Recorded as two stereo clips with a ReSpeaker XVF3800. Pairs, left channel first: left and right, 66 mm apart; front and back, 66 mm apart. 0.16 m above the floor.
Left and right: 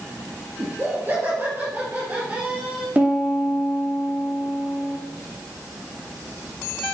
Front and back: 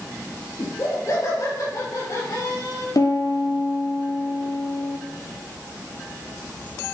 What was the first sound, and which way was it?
Laughter, 35° right.